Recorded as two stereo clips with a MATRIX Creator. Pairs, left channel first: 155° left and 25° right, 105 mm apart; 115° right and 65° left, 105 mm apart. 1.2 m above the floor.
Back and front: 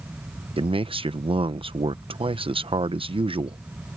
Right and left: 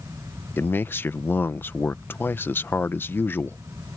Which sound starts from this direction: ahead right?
A man speaking, at 0.6 s.